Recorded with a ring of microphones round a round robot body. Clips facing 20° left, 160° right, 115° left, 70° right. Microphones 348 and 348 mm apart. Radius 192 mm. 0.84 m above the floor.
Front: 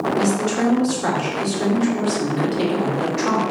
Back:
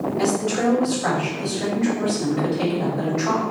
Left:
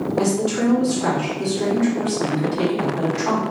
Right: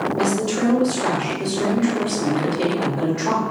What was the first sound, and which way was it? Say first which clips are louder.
A woman speaking: front 1 dB, left 1 dB; 45° left.